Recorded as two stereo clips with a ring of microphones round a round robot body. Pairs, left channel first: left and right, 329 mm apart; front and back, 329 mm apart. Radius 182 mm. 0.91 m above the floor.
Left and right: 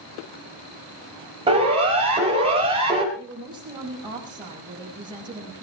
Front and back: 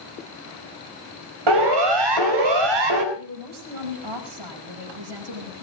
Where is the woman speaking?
170° right, 5.5 m.